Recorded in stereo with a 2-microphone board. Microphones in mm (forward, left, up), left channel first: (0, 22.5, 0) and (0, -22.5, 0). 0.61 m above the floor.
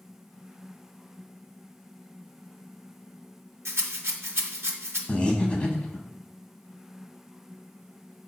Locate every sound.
3.6 s a rattle: 70° right (ahead or behind), 0.6 m
5.1 s breathing: 25° left (ahead or behind), 0.7 m